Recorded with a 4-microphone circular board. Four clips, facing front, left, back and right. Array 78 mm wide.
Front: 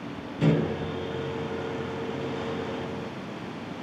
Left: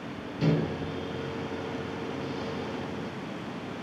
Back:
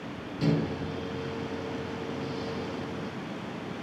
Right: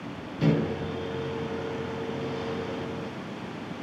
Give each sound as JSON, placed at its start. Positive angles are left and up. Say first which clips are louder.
{"t": 0.4, "sound": "a microwave", "louder": "right 2 dB, front 4 dB", "azimuth_deg": -15, "distance_m": 0.6}